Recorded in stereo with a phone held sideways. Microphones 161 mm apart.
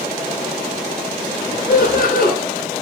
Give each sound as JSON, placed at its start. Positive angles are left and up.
{"t": 1.7, "sound": "laughter", "side_deg": 65, "distance_m": 9.0}